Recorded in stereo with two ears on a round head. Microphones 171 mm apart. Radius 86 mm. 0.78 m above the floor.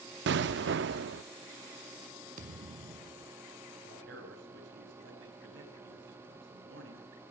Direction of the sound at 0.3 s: 65° right (ahead or behind).